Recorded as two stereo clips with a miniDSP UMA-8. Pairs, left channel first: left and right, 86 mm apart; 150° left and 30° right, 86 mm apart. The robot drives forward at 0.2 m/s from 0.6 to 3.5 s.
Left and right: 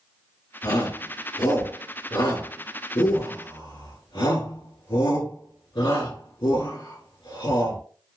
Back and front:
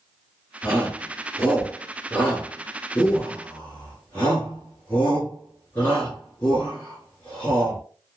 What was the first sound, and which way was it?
A shout, 80° left.